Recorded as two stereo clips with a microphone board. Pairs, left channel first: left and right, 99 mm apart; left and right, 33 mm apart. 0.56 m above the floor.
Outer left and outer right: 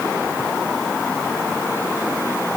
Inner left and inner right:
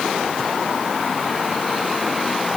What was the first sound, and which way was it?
Only background noise.